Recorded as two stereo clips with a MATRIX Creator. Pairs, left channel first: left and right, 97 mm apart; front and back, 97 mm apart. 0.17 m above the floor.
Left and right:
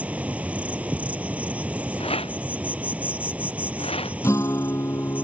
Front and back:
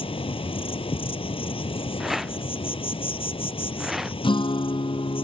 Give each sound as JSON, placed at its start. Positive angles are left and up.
{"t": 0.0, "sound": "an insect", "azimuth_deg": -15}
{"t": 2.0, "sound": "a rattle", "azimuth_deg": 90}
{"t": 4.2, "sound": "a guitar", "azimuth_deg": 30}